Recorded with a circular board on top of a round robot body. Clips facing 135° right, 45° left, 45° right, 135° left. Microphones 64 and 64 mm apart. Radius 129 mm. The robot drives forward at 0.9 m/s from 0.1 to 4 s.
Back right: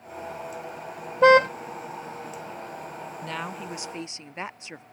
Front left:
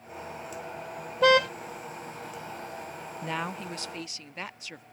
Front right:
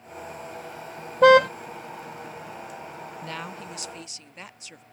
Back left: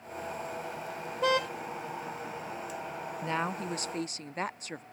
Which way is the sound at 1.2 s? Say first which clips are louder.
Back right 5 dB, front right 14 dB; 75° right.